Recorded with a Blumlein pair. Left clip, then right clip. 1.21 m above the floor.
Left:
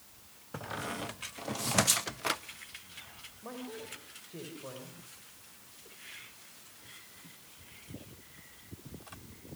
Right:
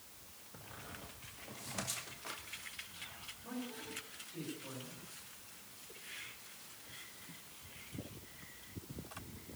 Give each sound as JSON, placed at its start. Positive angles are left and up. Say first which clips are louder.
{"t": 0.5, "sound": "a squeak", "louder": "left 14 dB", "azimuth_deg": 35, "distance_m": 0.5}
{"t": 3.4, "sound": "a man speaking", "louder": "left 4 dB", "azimuth_deg": 60, "distance_m": 5.5}